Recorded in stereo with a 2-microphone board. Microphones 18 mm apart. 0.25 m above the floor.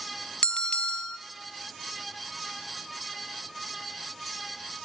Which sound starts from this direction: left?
A bell, at 0.4 s.